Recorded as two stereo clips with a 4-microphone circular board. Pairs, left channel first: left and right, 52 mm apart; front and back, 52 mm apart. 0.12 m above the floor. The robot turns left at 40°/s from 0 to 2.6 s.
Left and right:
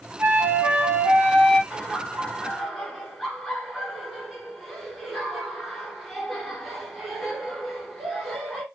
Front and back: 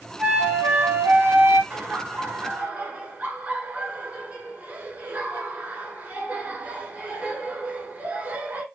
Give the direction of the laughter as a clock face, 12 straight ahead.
5 o'clock.